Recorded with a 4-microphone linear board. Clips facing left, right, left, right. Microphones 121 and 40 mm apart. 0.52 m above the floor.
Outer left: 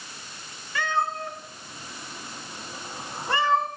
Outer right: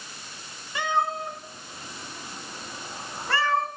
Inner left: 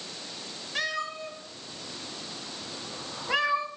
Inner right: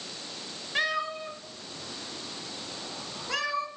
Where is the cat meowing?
20° right (ahead or behind), 3.5 m; by 3.7 s 25° left (ahead or behind), 3 m.